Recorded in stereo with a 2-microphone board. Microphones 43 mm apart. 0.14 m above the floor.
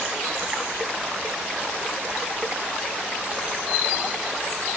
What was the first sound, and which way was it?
Only background noise.